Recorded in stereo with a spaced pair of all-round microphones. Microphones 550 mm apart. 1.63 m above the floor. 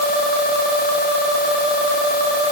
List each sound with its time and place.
Only background noise.